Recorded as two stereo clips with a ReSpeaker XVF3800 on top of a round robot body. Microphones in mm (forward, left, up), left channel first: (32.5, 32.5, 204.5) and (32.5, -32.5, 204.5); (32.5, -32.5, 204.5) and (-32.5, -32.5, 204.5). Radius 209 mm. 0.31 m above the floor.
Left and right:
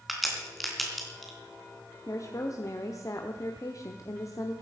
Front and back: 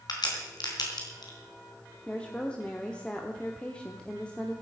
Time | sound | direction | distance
0.1 | a crack | straight ahead | 3.5 m
2.1 | a woman speaking | 70° left | 1.5 m